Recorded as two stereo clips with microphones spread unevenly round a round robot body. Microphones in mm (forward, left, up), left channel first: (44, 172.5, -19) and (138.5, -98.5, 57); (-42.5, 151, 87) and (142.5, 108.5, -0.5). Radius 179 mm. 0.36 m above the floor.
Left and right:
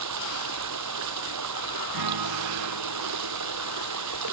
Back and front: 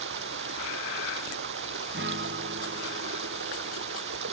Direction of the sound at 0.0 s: 45° right.